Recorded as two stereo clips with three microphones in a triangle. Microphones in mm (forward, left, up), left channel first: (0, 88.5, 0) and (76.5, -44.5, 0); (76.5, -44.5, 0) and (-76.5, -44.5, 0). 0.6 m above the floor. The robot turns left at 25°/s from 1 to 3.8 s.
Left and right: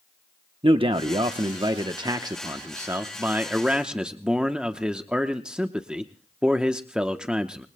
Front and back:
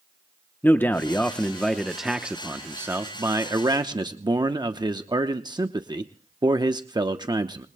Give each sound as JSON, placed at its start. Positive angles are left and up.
{"t": 0.6, "sound": "a man speaking", "azimuth_deg": -70, "distance_m": 0.8}